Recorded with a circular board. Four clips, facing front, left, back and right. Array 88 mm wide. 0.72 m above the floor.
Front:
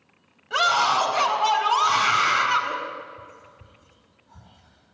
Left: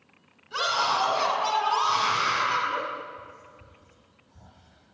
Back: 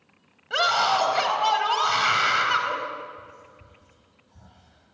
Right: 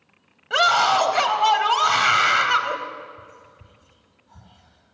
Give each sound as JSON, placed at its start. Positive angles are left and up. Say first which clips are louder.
{"t": 0.5, "sound": "a scream", "louder": "right 8 dB, front 1 dB", "azimuth_deg": -100, "distance_m": 4.0}
{"t": 3.2, "sound": "whispering", "louder": "even, even", "azimuth_deg": -60, "distance_m": 5.5}